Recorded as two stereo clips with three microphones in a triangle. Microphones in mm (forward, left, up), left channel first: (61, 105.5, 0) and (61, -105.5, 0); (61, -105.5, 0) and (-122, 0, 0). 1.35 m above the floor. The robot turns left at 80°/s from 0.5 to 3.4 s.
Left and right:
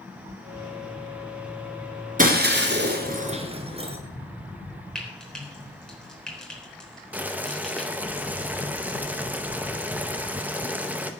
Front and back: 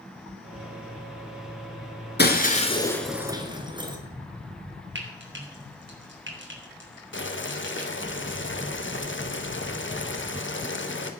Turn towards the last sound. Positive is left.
turn(degrees=-5)